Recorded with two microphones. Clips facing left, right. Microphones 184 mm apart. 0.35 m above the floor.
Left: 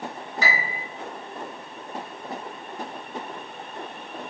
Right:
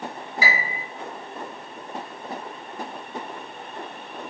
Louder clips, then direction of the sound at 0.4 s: Right 1 dB; 10° right (ahead or behind).